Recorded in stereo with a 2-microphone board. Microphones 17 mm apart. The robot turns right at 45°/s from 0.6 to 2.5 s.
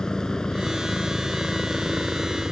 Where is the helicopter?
125° left; by 2.5 s 145° right.